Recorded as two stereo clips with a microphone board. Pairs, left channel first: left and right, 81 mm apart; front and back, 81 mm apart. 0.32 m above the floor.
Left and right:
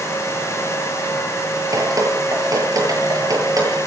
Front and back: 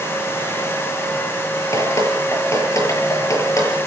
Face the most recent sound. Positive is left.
turn(degrees=-50)